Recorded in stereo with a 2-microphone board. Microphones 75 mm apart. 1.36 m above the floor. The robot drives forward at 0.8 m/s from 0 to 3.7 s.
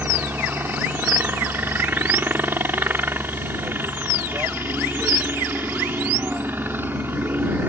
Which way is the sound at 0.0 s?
25° right (ahead or behind).